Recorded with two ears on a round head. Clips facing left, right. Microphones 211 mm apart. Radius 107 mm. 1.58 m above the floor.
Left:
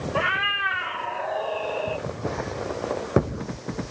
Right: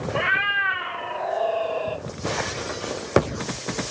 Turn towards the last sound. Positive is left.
turn(degrees=-35)  # may be behind; listen again after turning